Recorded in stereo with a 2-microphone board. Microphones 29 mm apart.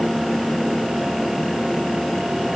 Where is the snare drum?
I don't hear a snare drum.